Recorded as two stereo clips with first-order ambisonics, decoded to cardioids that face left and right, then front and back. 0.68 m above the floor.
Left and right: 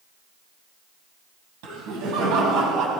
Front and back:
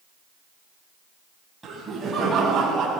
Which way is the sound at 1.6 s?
105° right.